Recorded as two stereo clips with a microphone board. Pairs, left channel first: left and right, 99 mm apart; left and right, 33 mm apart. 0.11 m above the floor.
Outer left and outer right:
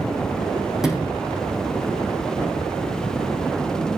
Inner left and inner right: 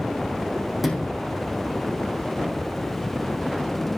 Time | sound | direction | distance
0.8 | a sliding door | 5° right (ahead or behind) | 5 m